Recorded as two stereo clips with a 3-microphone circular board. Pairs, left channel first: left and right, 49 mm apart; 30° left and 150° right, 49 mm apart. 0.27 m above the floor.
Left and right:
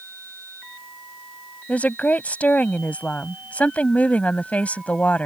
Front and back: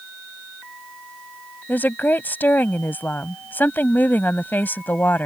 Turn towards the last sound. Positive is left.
turn(degrees=45)